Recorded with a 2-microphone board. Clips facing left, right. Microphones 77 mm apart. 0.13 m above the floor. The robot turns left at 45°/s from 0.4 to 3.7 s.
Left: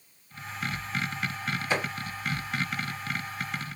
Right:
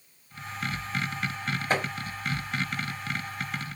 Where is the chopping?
45° right (ahead or behind), 3 m; by 1.9 s 50° right (ahead or behind), 3 m.